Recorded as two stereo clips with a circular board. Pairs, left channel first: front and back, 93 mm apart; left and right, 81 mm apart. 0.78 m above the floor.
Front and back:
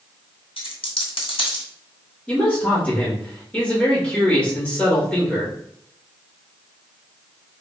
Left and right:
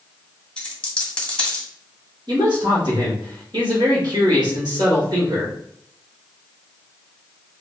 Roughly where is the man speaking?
Right.